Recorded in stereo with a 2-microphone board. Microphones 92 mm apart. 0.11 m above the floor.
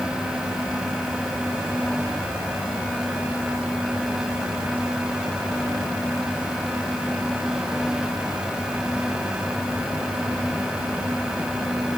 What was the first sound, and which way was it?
Only background noise.